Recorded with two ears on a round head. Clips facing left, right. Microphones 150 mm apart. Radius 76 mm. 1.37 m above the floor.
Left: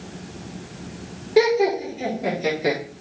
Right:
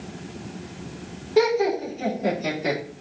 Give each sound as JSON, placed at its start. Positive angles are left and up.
{"t": 1.4, "sound": "laughter", "side_deg": 10, "distance_m": 4.5}